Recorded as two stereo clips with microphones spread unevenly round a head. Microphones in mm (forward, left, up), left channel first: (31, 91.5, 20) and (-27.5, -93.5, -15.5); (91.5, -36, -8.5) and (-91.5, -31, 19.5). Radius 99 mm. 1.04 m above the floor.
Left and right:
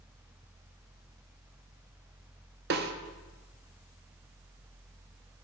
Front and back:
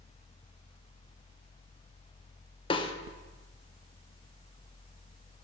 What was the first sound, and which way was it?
A snare drum, 65° right.